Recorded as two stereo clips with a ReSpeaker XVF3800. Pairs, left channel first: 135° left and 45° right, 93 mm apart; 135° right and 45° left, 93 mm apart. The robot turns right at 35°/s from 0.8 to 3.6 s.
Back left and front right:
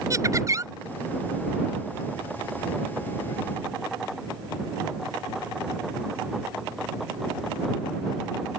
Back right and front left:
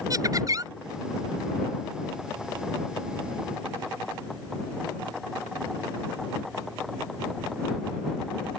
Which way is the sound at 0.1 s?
5° left.